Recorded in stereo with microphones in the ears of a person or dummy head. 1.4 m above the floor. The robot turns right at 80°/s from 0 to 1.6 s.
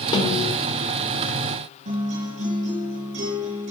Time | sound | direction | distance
0.1 | a snare drum | 30° left | 3.5 m
1.9 | a guitar | 45° right (ahead or behind) | 4.5 m